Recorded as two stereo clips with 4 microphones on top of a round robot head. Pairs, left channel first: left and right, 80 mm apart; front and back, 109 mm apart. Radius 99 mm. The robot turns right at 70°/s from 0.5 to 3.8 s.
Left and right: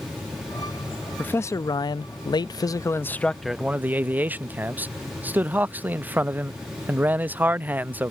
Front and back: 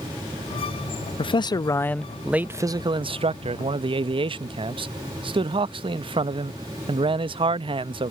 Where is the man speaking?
20° left; by 8.1 s 155° right.